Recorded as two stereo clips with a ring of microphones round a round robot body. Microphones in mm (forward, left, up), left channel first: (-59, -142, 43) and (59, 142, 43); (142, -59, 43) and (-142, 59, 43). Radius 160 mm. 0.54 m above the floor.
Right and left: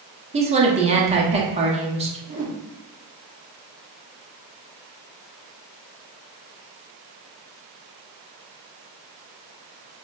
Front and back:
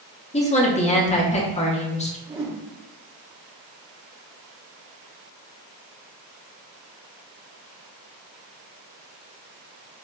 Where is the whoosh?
100° left, 1.2 m.